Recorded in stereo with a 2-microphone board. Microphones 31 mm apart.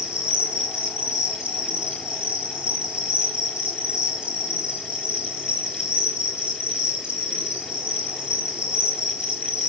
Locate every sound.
0.0 s an insect: 30° right (ahead or behind), 7.5 m